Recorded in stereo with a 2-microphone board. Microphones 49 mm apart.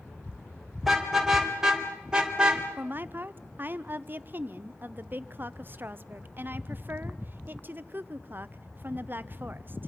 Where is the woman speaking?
45° right (ahead or behind), 0.7 m.